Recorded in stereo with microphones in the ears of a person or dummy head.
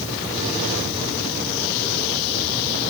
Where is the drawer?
No drawer in this recording.